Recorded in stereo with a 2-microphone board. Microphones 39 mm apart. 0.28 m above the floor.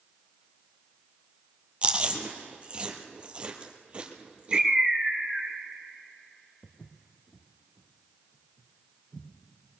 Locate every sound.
1.8 s chewing: 30° right (ahead or behind), 1.4 m
4.5 s a bird: 15° right (ahead or behind), 1.5 m
6.6 s footsteps: 45° left (ahead or behind), 1.1 m; by 9.3 s 10° left (ahead or behind), 3.5 m